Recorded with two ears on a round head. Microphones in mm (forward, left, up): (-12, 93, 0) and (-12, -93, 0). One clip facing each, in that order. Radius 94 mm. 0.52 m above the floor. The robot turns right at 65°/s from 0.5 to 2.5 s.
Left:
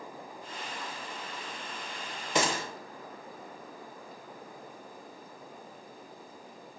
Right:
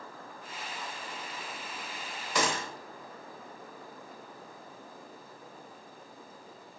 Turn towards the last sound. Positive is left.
turn(degrees=30)  # may be behind; listen again after turning